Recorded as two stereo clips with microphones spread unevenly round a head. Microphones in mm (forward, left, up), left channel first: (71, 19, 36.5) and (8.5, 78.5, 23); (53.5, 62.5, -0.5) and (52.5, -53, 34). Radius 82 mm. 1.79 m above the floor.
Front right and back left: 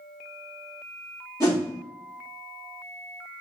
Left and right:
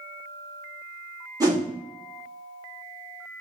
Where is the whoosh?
65° right, 1.2 m.